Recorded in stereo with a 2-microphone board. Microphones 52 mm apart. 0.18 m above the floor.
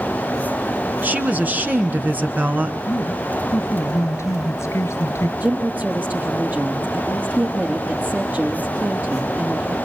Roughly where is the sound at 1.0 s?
Right.